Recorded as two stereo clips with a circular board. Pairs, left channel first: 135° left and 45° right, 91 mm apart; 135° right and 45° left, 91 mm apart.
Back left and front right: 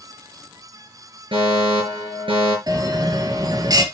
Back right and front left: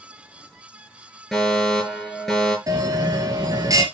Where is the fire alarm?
45° right, 7 m.